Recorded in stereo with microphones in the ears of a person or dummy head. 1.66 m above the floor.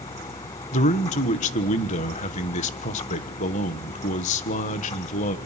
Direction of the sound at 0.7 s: 40° left (ahead or behind).